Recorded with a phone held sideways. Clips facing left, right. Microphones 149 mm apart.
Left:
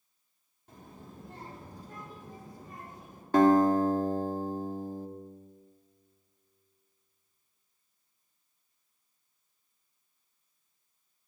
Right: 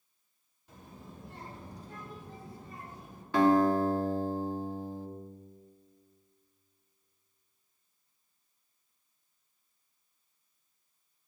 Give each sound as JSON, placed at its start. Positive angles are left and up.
{"t": 0.7, "sound": "a child speaking", "side_deg": 55, "distance_m": 2.5}
{"t": 3.3, "sound": "a guitar", "side_deg": 45, "distance_m": 1.0}